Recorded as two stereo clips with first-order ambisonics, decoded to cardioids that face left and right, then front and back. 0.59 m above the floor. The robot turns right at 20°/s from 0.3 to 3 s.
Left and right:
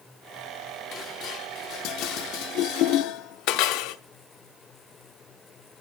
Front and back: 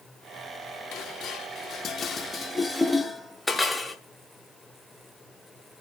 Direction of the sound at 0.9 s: 40° left.